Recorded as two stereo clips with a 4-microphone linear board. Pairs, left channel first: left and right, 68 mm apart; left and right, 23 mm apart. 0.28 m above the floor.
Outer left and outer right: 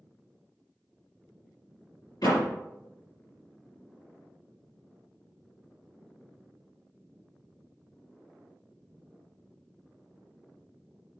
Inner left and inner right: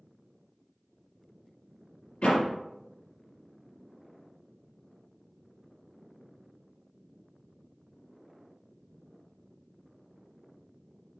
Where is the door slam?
65° left (ahead or behind), 3.5 m.